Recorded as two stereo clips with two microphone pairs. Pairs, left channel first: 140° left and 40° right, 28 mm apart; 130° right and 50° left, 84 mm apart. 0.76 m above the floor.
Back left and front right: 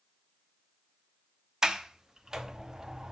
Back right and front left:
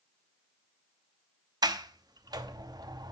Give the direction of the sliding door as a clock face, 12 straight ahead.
11 o'clock.